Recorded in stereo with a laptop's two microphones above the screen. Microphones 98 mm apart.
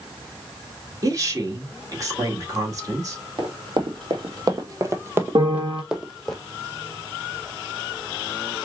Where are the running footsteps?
55° right (ahead or behind), 1.6 m; by 6.3 s centre (ahead or behind), 1.5 m.